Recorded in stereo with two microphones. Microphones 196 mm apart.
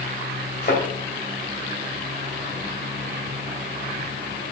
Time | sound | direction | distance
0.6 | a thud | 60° left (ahead or behind) | 3.5 m